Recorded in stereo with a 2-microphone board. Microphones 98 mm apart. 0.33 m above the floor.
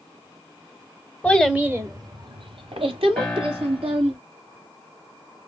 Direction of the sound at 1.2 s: 10° left (ahead or behind).